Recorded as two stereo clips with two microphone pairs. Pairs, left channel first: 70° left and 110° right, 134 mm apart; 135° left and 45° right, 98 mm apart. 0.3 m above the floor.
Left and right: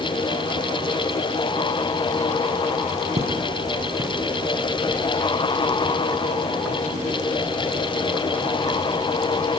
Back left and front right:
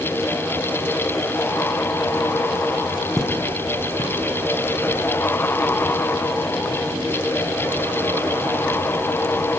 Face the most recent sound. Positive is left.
turn(degrees=135)